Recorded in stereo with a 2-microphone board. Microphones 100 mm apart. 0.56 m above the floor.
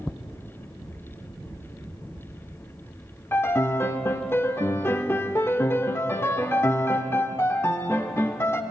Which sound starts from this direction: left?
A piano, at 3.3 s.